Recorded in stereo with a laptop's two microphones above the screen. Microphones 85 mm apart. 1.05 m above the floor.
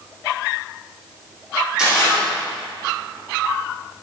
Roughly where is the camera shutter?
Centre.